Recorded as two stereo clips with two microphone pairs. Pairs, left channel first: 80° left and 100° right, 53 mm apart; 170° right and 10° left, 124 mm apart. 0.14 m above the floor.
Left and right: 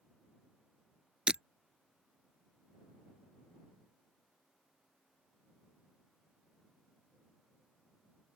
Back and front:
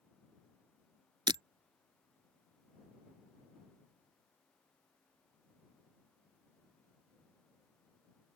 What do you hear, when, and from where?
1.3 s breaking glass: 30° right